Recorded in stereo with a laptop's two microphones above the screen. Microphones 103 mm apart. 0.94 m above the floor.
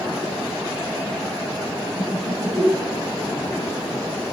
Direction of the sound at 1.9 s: 55° right (ahead or behind).